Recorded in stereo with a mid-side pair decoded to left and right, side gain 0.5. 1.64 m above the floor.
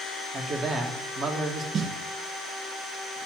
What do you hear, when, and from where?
0.3 s a man speaking: 45° right, 1.7 m
1.7 s a snare drum: 50° right, 0.7 m